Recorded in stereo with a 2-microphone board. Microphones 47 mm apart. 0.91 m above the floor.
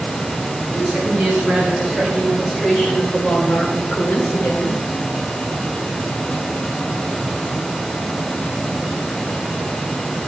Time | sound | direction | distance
0.7 | a woman speaking | 15° right (ahead or behind) | 5.5 m